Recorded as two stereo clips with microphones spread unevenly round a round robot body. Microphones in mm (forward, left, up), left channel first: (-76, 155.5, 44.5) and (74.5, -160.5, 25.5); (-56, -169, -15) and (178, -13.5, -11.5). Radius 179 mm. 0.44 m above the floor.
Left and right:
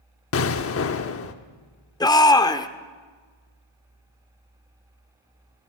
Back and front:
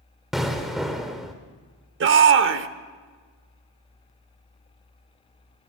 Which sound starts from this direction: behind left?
An explosion, at 0.3 s.